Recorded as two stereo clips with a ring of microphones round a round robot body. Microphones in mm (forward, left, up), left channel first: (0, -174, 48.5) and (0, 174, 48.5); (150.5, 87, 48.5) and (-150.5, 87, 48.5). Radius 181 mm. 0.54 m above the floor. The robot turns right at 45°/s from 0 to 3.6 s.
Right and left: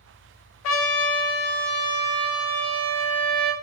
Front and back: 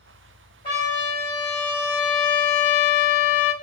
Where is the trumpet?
75° right, 0.6 m; by 3.5 s 55° left, 0.6 m.